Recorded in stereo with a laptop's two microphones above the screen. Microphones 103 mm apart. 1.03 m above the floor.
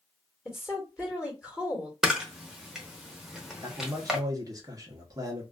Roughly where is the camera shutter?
Centre.